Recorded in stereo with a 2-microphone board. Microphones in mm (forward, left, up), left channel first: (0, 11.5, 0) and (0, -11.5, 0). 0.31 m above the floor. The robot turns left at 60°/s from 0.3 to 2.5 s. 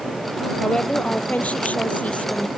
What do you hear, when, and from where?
0.6 s a woman speaking: 160° left; by 2.5 s 50° left